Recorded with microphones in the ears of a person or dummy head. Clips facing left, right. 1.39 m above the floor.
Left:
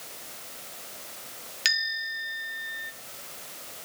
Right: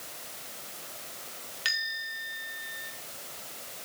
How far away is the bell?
About 2.5 m.